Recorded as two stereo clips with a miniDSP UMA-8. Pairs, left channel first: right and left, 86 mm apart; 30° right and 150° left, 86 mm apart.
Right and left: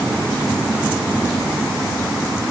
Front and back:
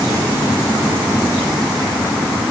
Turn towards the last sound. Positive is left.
No sound to turn to.